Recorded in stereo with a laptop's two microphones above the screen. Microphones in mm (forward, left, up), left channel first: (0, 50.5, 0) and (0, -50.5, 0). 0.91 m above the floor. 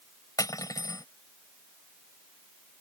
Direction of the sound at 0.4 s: 40° left (ahead or behind).